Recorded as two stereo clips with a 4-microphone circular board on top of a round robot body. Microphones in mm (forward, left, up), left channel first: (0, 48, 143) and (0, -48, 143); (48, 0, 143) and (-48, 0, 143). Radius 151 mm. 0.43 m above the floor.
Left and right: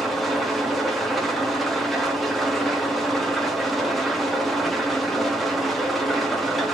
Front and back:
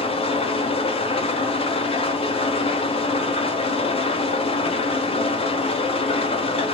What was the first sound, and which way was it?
An engine running, straight ahead.